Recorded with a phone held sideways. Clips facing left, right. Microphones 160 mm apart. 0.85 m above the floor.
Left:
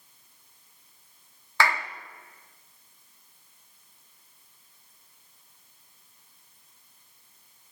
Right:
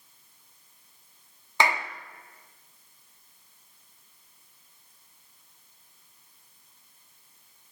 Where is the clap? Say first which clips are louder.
Right 1 dB; 20° right (ahead or behind), 1.5 m.